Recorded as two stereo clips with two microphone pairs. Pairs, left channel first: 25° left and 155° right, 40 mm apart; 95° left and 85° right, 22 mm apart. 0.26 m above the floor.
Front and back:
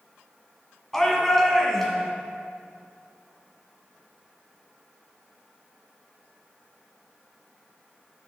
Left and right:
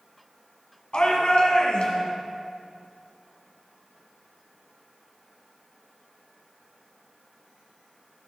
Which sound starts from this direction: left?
A shout, at 0.9 s.